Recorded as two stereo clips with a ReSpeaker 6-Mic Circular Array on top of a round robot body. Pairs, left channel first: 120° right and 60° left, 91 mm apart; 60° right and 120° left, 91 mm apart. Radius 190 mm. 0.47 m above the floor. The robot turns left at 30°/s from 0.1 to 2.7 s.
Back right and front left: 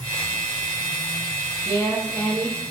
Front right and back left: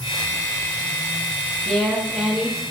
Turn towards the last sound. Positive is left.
turn(degrees=-170)